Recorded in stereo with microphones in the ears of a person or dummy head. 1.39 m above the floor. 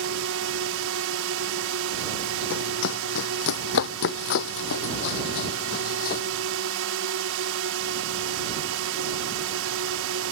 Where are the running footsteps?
60° left (ahead or behind); by 6.2 s 50° left (ahead or behind).